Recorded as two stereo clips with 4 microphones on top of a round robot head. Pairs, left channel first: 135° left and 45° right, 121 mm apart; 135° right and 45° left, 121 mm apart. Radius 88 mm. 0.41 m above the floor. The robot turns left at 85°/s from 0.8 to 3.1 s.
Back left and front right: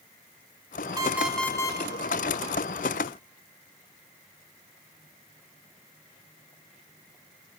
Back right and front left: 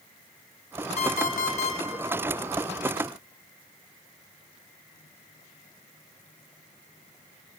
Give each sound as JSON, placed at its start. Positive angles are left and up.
{"t": 1.0, "sound": "an alarm clock", "azimuth_deg": -105, "distance_m": 0.8}